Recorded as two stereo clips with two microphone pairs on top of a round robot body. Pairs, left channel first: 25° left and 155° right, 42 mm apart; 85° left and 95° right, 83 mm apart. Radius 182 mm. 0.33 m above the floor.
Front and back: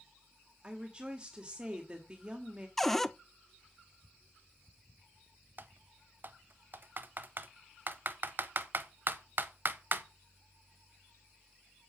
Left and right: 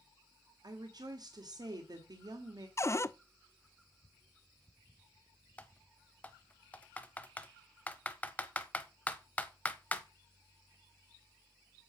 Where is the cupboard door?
115° left, 0.7 m.